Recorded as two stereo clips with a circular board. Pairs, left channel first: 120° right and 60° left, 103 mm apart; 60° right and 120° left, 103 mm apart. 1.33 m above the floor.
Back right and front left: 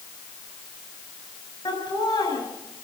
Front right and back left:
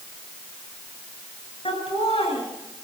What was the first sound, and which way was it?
Laughter, 80° right.